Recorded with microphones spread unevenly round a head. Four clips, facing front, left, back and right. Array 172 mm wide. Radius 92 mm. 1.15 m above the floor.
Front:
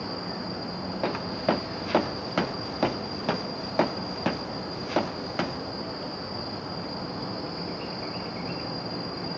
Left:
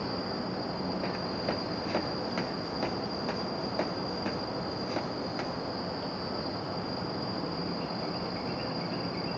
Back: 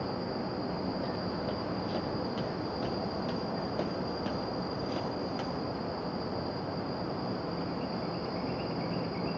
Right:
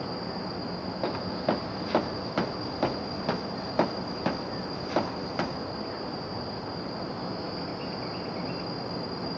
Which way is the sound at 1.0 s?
20° right.